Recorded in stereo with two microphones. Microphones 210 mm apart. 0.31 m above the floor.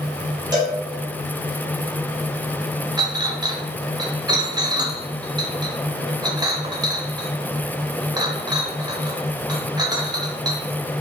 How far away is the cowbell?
About 1.1 m.